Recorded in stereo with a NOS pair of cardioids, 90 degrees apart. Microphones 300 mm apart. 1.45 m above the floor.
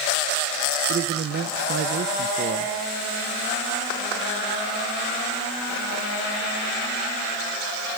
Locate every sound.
0.9 s a man speaking: 45° right, 1.5 m